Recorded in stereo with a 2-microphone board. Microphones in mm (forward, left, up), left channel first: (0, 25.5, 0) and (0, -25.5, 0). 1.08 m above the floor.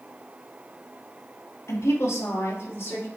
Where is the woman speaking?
65° left (ahead or behind), 1.6 m; by 3.1 s 50° left (ahead or behind), 2.5 m.